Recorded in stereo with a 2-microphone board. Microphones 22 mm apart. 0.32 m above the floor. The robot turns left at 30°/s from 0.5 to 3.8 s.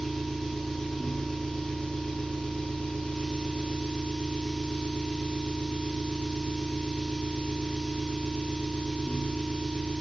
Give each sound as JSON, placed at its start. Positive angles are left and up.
{"t": 0.0, "sound": "an engine running", "azimuth_deg": 170, "distance_m": 6.5}